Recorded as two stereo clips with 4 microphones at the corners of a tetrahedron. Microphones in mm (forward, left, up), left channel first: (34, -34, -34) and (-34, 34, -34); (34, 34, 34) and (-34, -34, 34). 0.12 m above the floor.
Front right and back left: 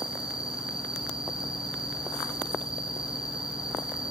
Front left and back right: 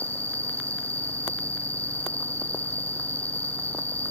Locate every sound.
0.0 s an insect: 165° left, 0.8 m